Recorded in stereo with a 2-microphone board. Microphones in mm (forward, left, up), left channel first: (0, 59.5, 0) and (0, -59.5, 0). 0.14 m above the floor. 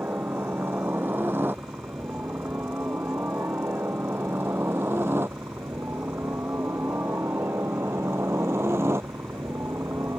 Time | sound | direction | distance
0.0 | a helicopter | 15° right (ahead or behind) | ?